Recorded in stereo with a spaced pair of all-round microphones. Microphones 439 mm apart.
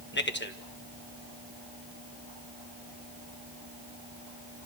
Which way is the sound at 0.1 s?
25° left (ahead or behind).